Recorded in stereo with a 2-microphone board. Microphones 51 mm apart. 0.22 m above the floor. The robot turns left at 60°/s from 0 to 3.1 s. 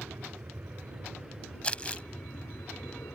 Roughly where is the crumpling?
Left.